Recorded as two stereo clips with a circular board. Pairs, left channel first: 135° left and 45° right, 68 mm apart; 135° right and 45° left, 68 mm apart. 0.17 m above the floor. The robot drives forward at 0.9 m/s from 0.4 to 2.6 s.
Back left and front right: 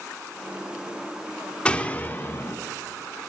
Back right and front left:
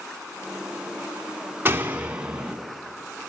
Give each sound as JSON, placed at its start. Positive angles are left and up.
{"t": 1.6, "sound": "a door slam", "azimuth_deg": 75, "distance_m": 1.3}